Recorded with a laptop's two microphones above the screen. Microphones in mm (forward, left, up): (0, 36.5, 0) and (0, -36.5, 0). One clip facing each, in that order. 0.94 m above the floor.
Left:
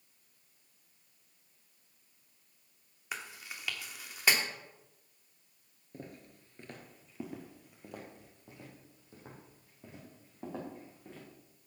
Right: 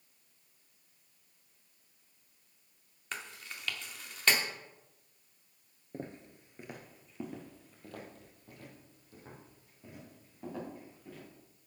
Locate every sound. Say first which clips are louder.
3.1 s chewing: even; 10° left (ahead or behind), 1.1 m
5.9 s footsteps: right 4 dB; 35° right (ahead or behind), 1.0 m; by 11.2 s 30° left (ahead or behind), 4 m